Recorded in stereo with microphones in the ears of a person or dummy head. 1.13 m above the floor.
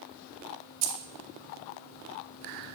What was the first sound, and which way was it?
Keys jangling, 85° right.